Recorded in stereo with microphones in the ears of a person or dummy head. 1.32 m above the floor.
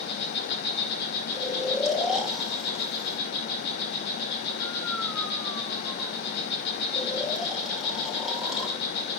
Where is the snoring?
Centre (ahead or behind), 3 m.